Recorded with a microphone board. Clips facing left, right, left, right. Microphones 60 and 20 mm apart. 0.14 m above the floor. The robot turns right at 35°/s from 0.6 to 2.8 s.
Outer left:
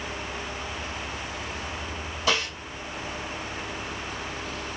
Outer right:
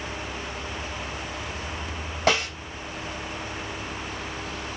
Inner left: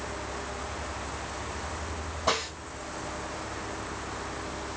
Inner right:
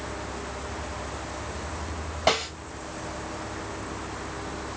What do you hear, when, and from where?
2.3 s a snare drum: 65° right (ahead or behind), 2.5 m; by 2.5 s 60° right (ahead or behind), 2.5 m